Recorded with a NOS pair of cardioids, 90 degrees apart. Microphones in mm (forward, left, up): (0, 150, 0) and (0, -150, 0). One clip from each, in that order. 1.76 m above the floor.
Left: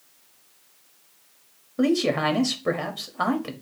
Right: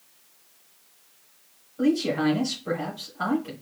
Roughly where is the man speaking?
Left.